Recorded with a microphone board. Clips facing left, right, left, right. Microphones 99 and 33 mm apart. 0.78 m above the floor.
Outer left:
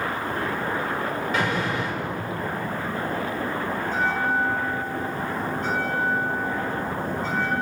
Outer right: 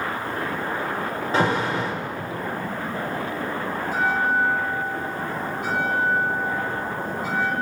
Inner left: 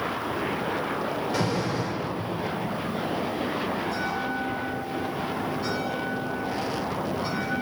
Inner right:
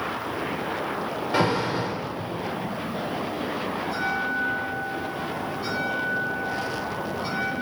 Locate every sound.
1.3 s an alarm: 30° right (ahead or behind), 3.5 m
3.8 s a bell: 10° right (ahead or behind), 6 m